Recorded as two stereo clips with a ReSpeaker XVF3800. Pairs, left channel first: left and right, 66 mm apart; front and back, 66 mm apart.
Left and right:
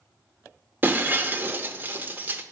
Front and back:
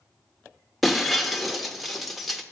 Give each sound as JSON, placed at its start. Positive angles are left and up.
{"t": 0.8, "sound": "breaking glass", "azimuth_deg": -85, "distance_m": 0.6}